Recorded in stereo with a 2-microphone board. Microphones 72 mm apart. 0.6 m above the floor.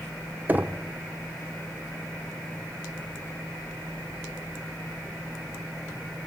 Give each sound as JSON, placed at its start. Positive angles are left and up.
{"t": 0.5, "sound": "knocking", "side_deg": -25, "distance_m": 0.7}